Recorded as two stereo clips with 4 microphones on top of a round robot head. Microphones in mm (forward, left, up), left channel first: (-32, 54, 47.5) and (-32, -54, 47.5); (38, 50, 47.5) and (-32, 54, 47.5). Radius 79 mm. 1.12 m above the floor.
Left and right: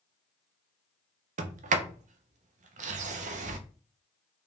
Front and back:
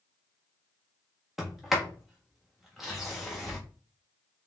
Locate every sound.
1.4 s a sliding door: 95° right, 0.5 m